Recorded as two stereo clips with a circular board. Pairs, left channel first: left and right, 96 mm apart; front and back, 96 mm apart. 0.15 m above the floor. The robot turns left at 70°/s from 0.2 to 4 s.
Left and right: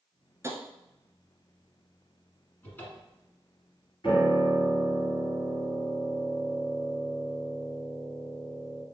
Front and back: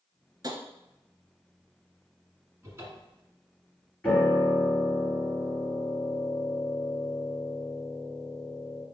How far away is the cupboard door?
About 1.3 m.